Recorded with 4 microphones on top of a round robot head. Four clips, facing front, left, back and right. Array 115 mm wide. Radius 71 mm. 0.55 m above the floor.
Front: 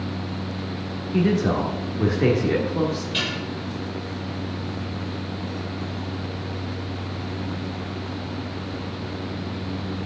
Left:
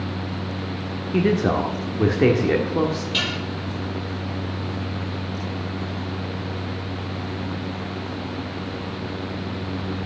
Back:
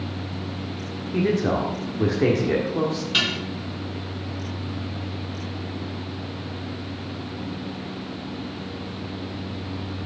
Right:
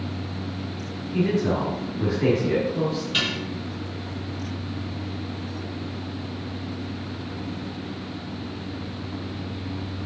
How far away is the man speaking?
About 1.5 m.